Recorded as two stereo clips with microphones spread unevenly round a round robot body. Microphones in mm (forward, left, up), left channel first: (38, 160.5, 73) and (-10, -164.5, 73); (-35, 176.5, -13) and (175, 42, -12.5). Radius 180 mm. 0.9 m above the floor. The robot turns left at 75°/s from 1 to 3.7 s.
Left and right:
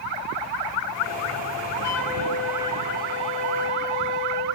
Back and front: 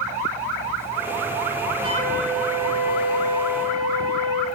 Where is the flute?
40° left, 1.5 m; by 4.5 s 100° right, 1.5 m.